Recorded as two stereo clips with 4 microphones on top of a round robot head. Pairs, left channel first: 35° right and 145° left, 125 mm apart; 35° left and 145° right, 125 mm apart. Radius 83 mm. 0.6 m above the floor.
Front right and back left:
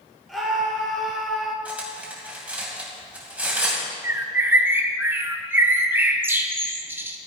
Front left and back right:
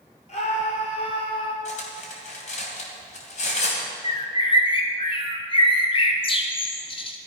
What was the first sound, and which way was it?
A scream, 55° left.